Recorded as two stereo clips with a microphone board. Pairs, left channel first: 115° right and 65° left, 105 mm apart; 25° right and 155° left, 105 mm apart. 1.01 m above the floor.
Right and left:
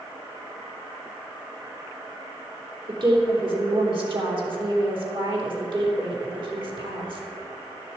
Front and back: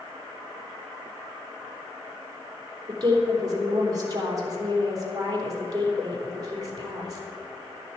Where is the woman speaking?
105° left, 3 m.